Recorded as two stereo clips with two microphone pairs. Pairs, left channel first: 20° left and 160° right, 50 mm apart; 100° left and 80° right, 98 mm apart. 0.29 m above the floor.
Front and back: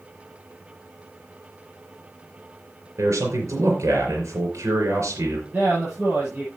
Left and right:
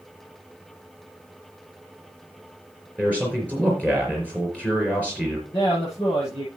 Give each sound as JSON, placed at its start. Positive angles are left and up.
{"t": 3.0, "sound": "a man speaking", "azimuth_deg": 175, "distance_m": 4.0}
{"t": 5.5, "sound": "a man speaking", "azimuth_deg": 140, "distance_m": 7.0}